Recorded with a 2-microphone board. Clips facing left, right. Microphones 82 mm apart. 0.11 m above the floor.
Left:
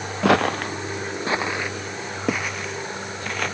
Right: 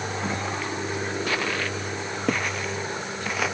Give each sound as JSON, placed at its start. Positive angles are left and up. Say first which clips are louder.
{"t": 0.2, "sound": "footsteps", "louder": "left 14 dB", "side_deg": 80}